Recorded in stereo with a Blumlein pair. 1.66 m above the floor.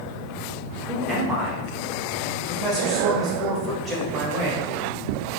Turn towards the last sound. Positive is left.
turn(degrees=-20)